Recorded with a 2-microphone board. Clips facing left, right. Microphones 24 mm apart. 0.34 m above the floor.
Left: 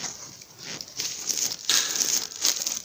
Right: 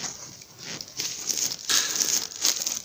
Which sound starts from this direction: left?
A thud, at 1.7 s.